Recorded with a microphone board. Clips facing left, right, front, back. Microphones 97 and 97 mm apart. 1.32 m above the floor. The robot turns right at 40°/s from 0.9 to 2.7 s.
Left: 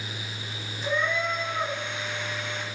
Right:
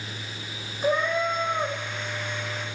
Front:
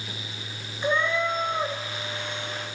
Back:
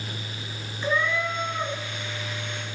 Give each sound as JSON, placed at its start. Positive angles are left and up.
{"t": 0.8, "sound": "a cat meowing", "azimuth_deg": -70, "distance_m": 0.8}